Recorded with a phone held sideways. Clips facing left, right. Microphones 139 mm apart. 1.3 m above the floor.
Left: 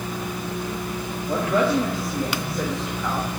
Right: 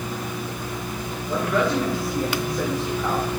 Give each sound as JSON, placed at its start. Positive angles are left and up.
{"t": 1.3, "sound": "a woman speaking", "side_deg": 40, "distance_m": 2.5}